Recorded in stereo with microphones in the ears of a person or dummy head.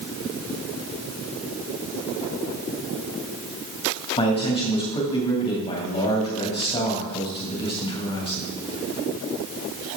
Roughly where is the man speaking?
Left.